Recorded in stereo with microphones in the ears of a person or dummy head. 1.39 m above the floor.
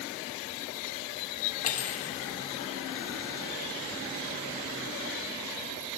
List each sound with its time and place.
1.6 s cutlery clinking: 45° left (ahead or behind), 2 m